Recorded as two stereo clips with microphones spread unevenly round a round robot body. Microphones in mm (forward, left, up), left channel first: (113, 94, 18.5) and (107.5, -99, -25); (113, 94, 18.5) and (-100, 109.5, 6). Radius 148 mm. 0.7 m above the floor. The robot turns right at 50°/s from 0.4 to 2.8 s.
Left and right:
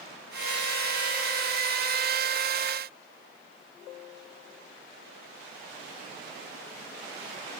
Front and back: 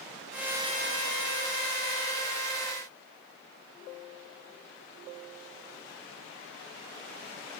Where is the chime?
No chime in this recording.